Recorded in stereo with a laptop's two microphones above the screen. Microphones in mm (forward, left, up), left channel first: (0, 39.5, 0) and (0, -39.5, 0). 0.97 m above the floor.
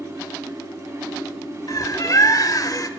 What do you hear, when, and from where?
0.0 s a fan: 35° right (ahead or behind), 5.5 m
1.7 s a bird: 45° left (ahead or behind), 0.8 m